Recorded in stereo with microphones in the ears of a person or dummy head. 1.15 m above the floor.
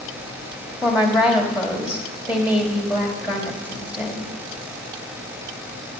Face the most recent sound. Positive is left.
turn(degrees=-5)  # may be behind; listen again after turning